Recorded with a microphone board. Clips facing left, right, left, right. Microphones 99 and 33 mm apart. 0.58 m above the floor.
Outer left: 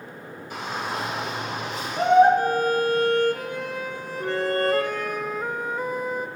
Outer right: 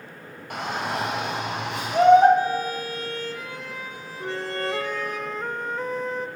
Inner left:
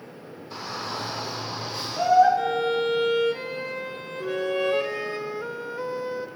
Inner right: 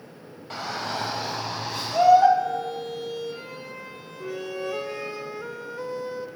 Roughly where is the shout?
Right.